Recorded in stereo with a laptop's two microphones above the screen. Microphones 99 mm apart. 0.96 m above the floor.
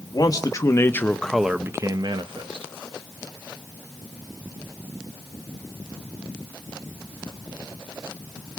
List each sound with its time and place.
0.1 s a man speaking: 45° left (ahead or behind), 1.3 m; by 2.7 s 75° right (ahead or behind), 1.0 m